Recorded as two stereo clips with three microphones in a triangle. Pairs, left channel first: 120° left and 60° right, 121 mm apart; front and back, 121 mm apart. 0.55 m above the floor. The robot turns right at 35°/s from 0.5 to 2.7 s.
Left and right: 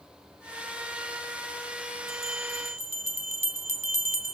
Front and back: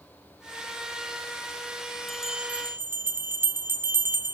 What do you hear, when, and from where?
2.1 s a bell: 90° left, 1.6 m; by 4.3 s 110° left, 1.6 m